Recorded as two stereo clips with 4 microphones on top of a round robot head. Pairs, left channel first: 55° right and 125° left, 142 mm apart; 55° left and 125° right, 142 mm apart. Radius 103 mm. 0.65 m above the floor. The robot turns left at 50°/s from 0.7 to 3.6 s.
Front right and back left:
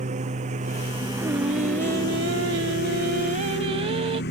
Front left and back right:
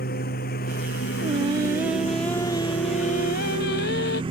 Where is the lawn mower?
80° left; by 4.3 s 65° right.